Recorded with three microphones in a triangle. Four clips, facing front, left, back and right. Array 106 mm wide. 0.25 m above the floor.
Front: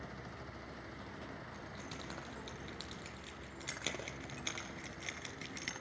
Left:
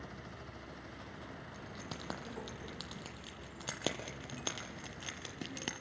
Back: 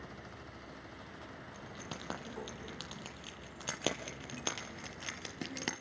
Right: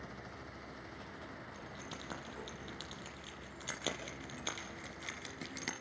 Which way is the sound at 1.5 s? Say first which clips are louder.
Left 1 dB, back 1 dB; 135° left.